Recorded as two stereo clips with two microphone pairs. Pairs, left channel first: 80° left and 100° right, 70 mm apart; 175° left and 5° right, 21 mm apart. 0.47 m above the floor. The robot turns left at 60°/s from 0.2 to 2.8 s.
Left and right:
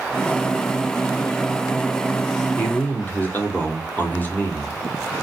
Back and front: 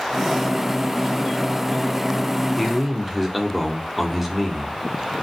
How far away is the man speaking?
About 1.0 m.